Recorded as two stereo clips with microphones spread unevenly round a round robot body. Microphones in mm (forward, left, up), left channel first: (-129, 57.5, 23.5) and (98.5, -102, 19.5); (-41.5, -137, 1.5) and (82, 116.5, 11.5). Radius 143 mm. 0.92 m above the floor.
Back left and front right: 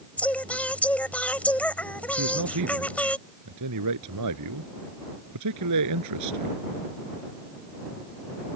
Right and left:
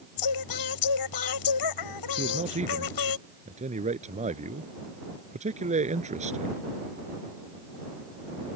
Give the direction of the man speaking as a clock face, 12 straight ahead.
12 o'clock.